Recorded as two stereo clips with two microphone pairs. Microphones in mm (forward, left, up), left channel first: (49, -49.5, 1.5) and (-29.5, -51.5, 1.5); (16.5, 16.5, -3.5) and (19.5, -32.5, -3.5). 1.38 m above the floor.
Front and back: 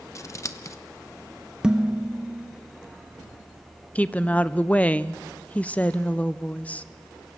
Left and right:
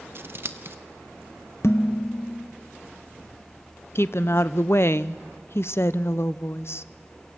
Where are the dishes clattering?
105° left, 0.9 m.